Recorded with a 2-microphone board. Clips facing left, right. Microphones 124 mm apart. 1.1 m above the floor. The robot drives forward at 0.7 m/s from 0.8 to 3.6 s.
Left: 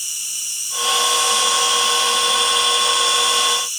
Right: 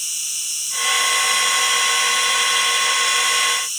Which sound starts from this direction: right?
An insect, at 0.0 s.